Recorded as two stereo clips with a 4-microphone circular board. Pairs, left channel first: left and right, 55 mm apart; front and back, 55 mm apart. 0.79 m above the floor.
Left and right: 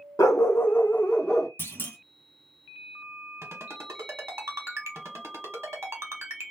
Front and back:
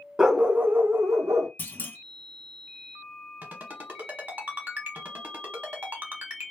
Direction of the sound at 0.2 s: 100° left.